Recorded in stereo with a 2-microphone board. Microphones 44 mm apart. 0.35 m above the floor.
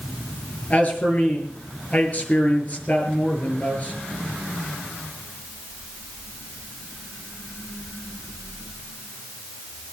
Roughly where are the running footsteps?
I don't hear running footsteps.